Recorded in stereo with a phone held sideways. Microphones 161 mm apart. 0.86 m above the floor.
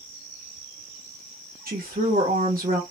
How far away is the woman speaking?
About 0.9 m.